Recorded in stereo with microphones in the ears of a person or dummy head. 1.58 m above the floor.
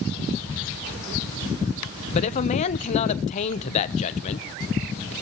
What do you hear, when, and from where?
2.1 s a man speaking: 40° left (ahead or behind), 1.0 m